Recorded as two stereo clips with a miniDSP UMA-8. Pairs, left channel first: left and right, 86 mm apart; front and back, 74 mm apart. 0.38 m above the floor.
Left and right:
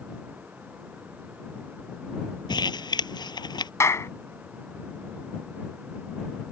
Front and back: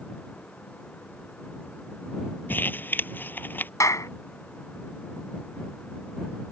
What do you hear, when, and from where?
2.5 s crumpling: 65° left
3.8 s a clap: 40° left